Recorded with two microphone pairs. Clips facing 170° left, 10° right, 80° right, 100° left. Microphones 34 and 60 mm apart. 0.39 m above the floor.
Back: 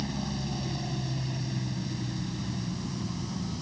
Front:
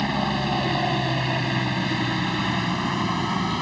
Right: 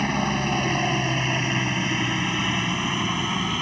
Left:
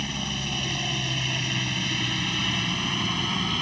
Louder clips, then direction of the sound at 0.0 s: Front 10 dB, right 8 dB; 40° right.